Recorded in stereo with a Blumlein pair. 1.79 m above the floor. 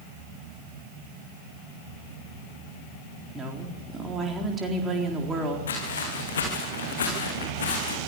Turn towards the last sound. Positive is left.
turn(degrees=65)